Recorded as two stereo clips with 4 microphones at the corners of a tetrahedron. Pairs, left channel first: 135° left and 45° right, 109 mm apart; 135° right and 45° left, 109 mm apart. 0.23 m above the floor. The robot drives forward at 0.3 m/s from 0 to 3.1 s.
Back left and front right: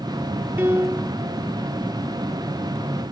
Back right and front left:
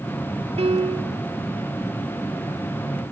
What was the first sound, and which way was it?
A piano, 25° left.